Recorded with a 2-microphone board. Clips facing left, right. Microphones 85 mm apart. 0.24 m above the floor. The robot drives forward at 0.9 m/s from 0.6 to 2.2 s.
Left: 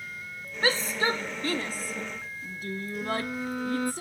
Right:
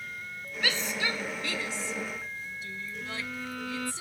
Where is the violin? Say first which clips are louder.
Left 8 dB; 25° left (ahead or behind).